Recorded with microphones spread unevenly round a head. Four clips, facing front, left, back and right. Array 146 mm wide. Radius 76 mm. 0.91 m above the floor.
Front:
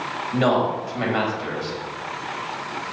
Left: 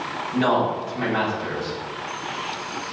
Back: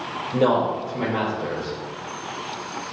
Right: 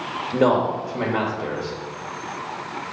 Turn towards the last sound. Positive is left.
turn(degrees=-115)